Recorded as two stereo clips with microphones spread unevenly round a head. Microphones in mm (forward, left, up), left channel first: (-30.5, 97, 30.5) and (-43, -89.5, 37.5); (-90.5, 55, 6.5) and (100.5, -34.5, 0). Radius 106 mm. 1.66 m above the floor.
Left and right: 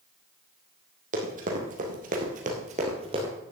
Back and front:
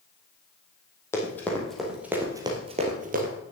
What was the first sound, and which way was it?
Running footsteps, 130° right.